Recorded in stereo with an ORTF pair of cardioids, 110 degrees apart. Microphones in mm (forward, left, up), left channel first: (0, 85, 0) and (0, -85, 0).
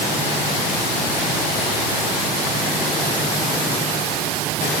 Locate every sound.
Only background noise.